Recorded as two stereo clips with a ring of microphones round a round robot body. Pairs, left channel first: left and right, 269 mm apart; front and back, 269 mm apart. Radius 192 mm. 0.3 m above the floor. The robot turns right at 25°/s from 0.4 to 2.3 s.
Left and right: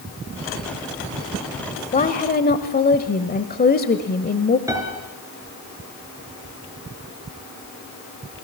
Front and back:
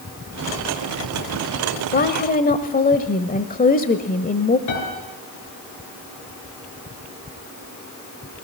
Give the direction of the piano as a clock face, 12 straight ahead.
12 o'clock.